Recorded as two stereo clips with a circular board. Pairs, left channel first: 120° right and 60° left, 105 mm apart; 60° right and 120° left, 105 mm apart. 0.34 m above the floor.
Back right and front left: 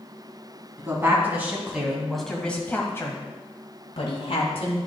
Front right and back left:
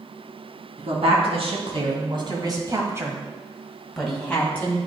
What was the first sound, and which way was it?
A woman speaking, 125° left.